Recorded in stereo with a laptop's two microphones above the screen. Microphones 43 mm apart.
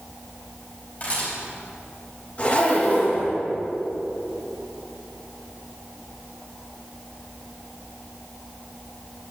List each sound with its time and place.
1.0 s a camera shutter: 40° left (ahead or behind), 3.5 m
2.4 s a zipper: 35° left (ahead or behind), 3.5 m